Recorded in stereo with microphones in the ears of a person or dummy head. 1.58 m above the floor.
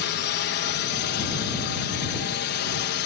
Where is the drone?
55° left (ahead or behind).